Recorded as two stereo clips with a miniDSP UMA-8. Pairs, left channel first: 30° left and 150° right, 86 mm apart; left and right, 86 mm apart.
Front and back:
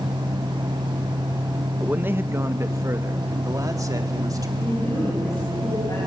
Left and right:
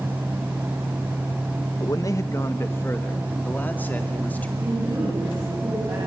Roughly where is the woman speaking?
Ahead right.